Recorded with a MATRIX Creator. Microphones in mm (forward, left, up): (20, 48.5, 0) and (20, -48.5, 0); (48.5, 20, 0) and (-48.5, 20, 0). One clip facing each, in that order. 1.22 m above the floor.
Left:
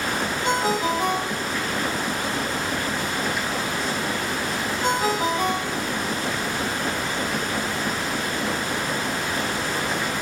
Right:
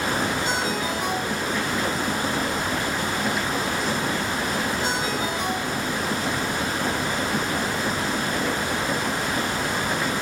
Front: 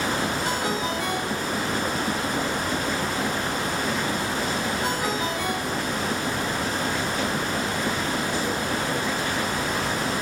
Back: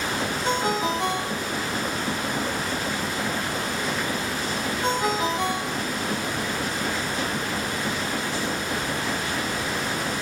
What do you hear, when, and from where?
0.4 s a ringtone: 120° left, 6.5 m